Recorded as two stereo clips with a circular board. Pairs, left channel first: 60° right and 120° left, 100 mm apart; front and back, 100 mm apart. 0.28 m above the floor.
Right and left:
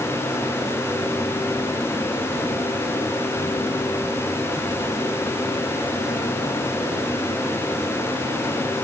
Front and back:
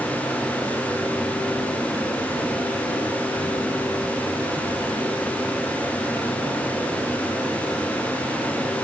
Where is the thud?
No thud in this recording.